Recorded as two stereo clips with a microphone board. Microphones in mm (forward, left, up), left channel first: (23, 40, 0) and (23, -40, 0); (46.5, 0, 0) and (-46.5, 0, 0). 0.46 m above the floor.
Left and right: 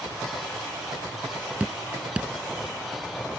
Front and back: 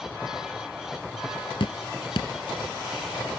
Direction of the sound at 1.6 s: 20° right.